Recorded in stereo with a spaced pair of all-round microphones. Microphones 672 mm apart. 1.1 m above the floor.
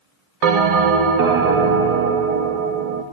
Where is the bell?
65° right (ahead or behind), 0.8 m.